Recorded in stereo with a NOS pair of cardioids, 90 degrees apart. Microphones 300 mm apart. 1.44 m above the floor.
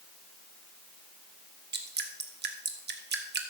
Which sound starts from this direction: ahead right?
Dripping, at 1.7 s.